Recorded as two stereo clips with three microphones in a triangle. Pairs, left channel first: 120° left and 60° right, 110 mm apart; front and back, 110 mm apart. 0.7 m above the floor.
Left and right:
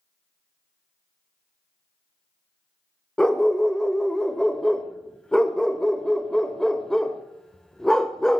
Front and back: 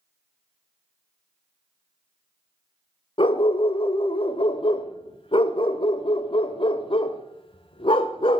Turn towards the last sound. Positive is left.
turn(degrees=35)